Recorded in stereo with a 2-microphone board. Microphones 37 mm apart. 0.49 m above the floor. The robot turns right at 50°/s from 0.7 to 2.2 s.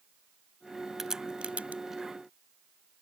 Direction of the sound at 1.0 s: 10° right (ahead or behind).